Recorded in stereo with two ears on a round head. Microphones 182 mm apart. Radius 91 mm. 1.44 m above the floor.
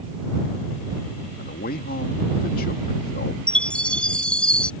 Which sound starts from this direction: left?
A man speaking, at 1.4 s.